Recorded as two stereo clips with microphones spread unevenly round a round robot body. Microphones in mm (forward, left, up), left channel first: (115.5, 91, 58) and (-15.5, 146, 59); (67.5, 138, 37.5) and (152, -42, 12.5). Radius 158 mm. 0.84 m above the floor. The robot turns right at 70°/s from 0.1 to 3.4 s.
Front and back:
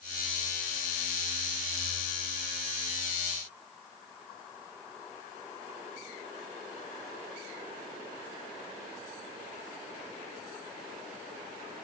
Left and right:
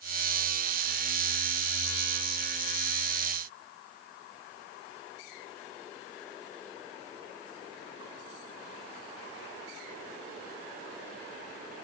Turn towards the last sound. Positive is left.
No sound to turn to.